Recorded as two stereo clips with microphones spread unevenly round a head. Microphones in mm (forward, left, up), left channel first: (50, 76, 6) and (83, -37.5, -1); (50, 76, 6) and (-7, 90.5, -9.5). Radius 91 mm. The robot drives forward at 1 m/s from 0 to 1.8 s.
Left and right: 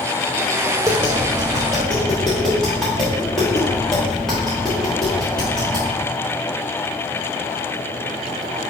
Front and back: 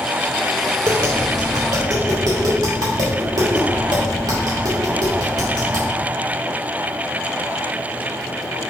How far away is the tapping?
About 0.6 m.